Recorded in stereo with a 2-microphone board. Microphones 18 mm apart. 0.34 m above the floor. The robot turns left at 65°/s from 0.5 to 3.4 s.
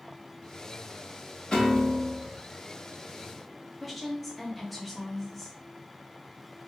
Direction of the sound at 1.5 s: 130° left.